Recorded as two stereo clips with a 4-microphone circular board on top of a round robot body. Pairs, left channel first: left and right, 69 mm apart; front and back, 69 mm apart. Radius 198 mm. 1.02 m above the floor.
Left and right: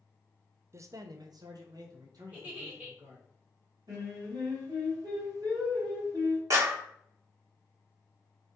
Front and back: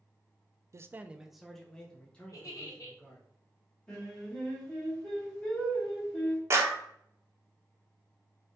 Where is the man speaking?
135° right, 0.5 m; by 3.3 s 65° right, 2 m.